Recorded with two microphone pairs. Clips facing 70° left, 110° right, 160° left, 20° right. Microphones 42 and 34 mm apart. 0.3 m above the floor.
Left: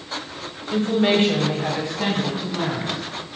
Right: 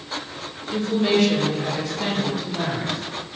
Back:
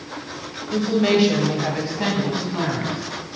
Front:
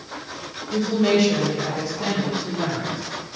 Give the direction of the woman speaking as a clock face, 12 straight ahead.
9 o'clock.